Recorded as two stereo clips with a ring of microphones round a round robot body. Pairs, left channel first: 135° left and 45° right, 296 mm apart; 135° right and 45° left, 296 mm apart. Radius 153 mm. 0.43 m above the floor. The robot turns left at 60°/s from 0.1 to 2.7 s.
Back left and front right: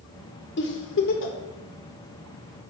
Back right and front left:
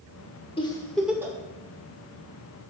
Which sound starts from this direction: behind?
A giggle, at 0.6 s.